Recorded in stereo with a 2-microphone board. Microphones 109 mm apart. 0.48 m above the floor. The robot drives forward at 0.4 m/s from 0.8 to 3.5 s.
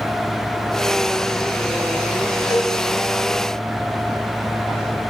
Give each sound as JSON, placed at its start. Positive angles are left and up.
{"t": 2.5, "sound": "a cowbell", "side_deg": 50, "distance_m": 1.9}